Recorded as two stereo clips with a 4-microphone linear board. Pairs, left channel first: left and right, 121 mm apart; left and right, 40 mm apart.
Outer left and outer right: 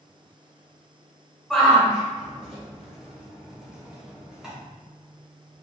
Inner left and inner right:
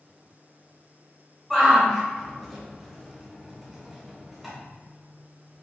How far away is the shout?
About 1.5 m.